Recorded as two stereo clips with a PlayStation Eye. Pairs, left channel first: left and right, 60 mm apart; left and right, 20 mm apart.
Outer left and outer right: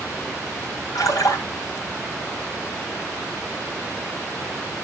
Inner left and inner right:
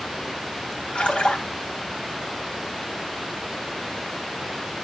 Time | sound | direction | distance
0.9 | a splash | 75° left (ahead or behind) | 3 m